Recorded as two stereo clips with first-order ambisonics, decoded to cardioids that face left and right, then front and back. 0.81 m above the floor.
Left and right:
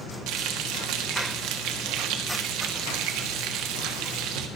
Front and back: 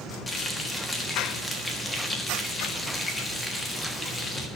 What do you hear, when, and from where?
0.3 s frying: 75° right, 1.4 m